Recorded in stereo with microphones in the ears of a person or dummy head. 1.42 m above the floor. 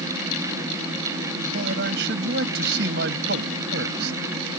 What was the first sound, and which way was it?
A man speaking, 70° right (ahead or behind).